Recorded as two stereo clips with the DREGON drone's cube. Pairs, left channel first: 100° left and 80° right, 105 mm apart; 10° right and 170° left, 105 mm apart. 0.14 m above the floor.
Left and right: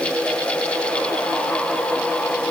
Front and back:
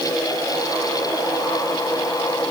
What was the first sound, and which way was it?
Only background noise.